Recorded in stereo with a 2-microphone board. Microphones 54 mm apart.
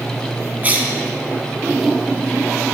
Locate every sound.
0.6 s a cough: 30° right (ahead or behind), 1.2 m